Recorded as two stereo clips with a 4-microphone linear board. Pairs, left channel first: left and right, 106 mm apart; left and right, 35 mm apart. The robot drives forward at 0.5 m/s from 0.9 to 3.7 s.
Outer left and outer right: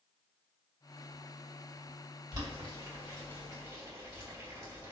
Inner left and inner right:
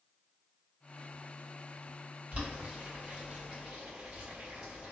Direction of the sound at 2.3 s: 40° right (ahead or behind).